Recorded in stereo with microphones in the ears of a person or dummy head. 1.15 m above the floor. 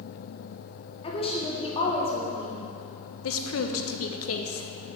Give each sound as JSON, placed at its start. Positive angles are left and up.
{"t": 1.0, "sound": "a woman speaking", "side_deg": 30, "distance_m": 1.0}
{"t": 3.2, "sound": "a woman speaking", "side_deg": 75, "distance_m": 0.7}